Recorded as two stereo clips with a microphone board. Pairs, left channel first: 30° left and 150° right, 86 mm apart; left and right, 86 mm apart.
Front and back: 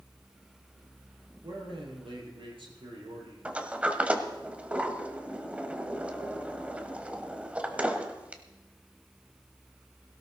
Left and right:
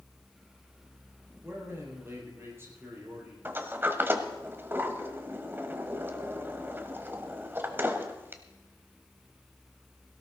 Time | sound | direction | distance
1.4 | a man speaking | 150° right | 6 m
3.5 | a sliding door | 100° right | 1.3 m